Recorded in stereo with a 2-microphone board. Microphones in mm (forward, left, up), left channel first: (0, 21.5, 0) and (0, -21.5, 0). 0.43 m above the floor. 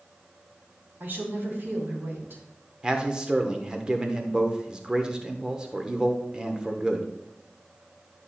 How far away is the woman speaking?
About 3.5 m.